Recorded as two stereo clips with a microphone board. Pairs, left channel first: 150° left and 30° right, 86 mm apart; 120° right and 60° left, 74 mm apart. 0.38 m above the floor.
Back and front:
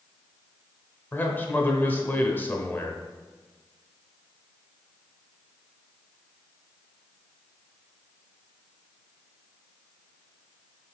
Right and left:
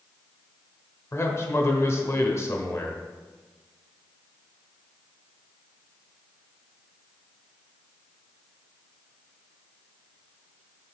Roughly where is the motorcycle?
I don't hear a motorcycle.